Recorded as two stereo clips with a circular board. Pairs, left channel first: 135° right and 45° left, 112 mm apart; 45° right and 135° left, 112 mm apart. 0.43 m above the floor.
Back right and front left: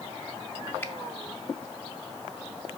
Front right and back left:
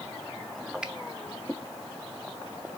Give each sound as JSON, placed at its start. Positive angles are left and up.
{"t": 0.8, "sound": "a finger snap", "azimuth_deg": -155, "distance_m": 0.9}